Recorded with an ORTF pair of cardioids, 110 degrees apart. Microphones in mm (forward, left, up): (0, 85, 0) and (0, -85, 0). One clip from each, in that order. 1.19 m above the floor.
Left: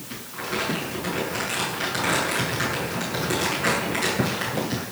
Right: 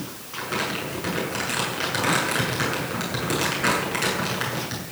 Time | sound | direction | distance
0.3 | crumpling | 30° right | 8 m